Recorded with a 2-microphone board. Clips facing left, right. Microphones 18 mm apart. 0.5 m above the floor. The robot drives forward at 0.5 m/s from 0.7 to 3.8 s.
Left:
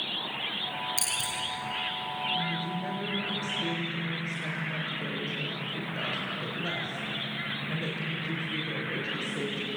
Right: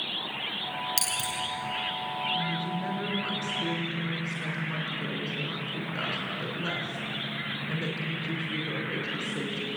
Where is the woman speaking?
75° right (ahead or behind), 6 m; by 9.7 s 70° right (ahead or behind), 6.5 m.